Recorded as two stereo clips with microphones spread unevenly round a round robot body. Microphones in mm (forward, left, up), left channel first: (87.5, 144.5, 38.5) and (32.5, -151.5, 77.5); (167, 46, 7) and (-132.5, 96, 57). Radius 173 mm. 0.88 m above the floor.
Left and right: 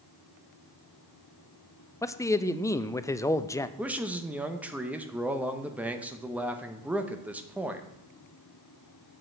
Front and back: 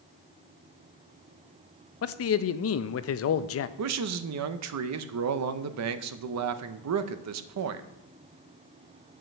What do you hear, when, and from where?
2.0 s a man speaking: 5° left, 0.6 m
3.8 s a man speaking: 170° left, 0.7 m